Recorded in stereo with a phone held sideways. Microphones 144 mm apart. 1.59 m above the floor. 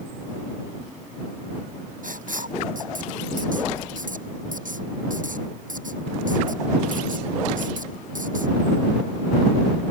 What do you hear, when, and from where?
2.0 s writing: 70° right (ahead or behind)